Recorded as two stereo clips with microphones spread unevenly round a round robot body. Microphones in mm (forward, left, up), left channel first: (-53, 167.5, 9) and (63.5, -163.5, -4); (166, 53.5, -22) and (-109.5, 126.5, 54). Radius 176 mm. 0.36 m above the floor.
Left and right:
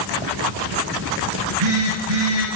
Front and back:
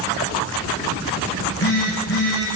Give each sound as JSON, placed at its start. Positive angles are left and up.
{"t": 1.3, "sound": "a phone buzzing", "azimuth_deg": -75, "distance_m": 4.5}